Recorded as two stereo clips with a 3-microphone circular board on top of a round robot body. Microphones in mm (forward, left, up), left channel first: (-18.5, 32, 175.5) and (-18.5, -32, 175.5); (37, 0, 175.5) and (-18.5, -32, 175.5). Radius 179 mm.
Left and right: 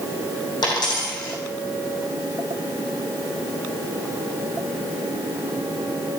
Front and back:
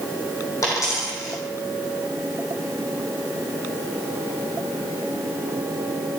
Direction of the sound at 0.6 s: 75° left.